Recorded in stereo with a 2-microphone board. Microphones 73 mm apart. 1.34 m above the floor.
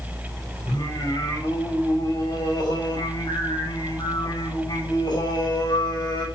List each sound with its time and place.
0.7 s singing: 75° left (ahead or behind), 6 m